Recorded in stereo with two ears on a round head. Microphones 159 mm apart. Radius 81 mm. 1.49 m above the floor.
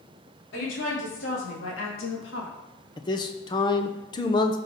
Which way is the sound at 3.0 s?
25° left (ahead or behind).